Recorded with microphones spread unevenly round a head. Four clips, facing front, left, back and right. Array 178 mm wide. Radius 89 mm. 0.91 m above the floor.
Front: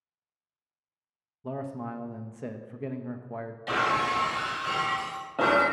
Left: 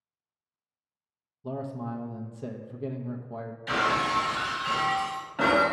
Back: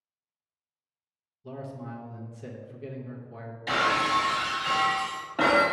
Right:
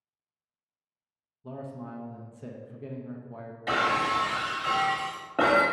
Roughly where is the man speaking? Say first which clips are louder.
Left 5 dB, front 4 dB; ahead left.